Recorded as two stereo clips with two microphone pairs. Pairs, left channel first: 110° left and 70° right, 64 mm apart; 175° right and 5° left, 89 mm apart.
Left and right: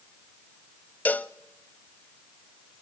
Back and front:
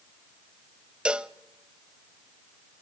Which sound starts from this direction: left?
A cowbell, at 1.1 s.